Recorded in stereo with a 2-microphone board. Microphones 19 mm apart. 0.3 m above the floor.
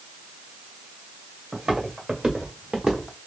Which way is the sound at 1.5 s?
60° right (ahead or behind).